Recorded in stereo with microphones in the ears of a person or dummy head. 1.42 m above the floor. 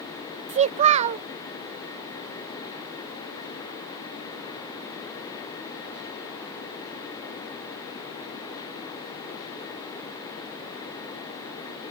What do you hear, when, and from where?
0.5 s a child speaking: 35° right (ahead or behind)